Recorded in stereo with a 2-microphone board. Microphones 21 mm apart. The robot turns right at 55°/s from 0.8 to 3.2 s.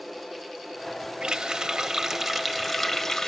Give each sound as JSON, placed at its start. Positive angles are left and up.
{"t": 1.2, "sound": "a running tap", "azimuth_deg": -75, "distance_m": 0.7}